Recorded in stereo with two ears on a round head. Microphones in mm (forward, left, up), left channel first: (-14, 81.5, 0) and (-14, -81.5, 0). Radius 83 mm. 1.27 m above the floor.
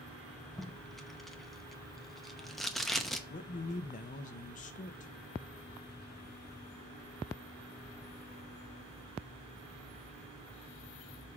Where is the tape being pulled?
Centre (ahead or behind), 0.8 m.